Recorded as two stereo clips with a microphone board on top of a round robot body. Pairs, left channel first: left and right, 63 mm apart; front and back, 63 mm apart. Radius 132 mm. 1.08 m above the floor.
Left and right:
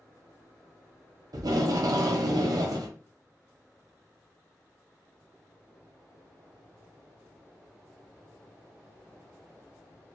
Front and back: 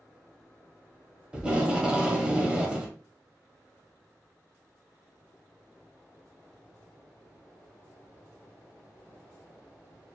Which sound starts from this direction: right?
Tape being pulled, at 1.3 s.